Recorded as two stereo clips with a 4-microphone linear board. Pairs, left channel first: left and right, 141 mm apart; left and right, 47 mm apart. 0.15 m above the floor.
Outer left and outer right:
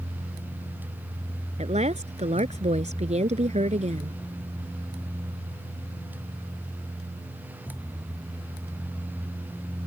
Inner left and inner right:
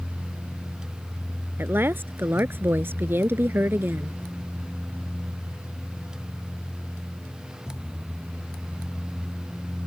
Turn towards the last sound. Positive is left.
turn(degrees=-50)  # may be behind; listen again after turning